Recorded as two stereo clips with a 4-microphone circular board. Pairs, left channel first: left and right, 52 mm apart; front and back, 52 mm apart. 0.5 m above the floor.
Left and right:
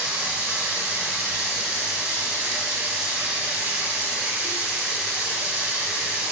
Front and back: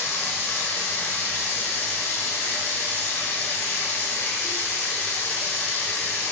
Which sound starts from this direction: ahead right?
Running water, at 0.0 s.